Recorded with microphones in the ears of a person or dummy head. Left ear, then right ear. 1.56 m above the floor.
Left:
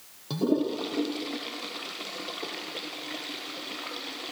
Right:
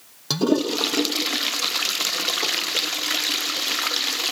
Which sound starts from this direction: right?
A toilet flushing, at 0.3 s.